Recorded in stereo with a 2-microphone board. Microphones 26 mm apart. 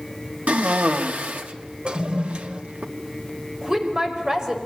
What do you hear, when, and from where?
0.5 s a cough: 70° right (ahead or behind), 2.5 m
1.9 s a toilet flushing: 45° right (ahead or behind), 1.5 m
3.6 s a woman speaking: 25° right (ahead or behind), 5 m